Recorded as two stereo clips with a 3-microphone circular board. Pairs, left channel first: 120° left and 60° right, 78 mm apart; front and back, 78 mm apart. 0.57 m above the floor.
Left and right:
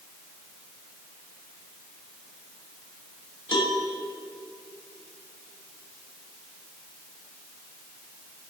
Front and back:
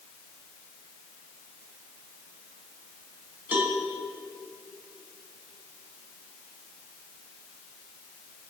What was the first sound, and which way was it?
A cowbell, 110° left.